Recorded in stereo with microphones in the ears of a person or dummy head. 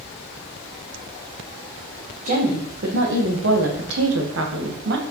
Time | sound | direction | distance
2.2 | a woman speaking | 40° right (ahead or behind) | 1.8 m